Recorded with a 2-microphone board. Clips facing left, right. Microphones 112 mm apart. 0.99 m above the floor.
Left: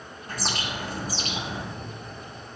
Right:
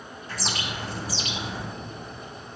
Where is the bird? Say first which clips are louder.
Left 1 dB; 50° left (ahead or behind), 1.1 m.